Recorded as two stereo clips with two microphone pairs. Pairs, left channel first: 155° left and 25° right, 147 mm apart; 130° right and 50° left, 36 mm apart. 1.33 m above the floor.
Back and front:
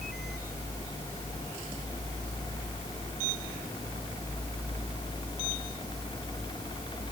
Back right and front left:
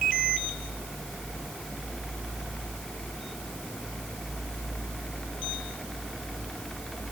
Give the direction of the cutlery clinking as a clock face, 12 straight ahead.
I don't hear cutlery clinking.